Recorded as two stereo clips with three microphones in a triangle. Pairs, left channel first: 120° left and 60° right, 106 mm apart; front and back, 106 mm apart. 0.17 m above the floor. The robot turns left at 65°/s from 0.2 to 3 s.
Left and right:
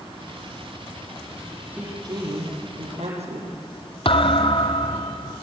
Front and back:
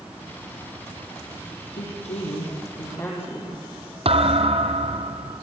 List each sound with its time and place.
1.7 s a woman speaking: 15° left, 7 m; by 3.6 s 70° right, 7 m
4.0 s a thud: 155° left, 1.2 m